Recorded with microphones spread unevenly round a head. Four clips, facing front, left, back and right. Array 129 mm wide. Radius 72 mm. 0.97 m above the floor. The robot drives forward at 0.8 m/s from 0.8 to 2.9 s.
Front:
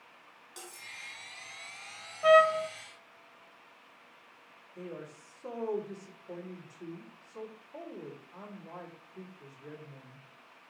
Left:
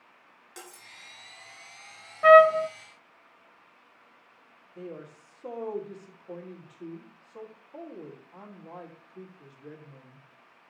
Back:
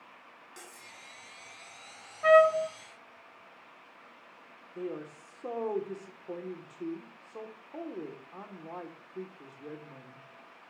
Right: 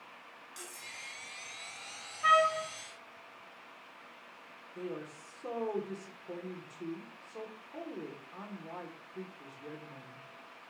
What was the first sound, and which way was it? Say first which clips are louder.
Cutlery clinking: left 4 dB, front 3 dB; 80° left.